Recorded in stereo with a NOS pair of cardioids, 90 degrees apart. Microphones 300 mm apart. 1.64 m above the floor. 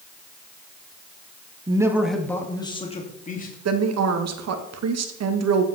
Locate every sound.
1.7 s a man speaking: 15° right, 1.9 m; by 3.5 s 30° left, 3 m
3.6 s a woman speaking: 60° right, 2.0 m